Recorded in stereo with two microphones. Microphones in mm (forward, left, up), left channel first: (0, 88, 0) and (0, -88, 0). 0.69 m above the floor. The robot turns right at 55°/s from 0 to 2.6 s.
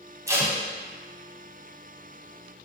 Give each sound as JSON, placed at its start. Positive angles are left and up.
{"t": 0.3, "sound": "tape being pulled", "side_deg": -20, "distance_m": 0.7}